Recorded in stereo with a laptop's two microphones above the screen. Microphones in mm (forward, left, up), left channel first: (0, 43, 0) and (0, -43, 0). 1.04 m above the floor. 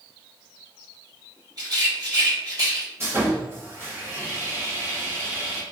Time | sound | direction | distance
1.6 | a rattle | 45° right (ahead or behind) | 1.4 m
3.0 | sawing | 30° right (ahead or behind) | 1.3 m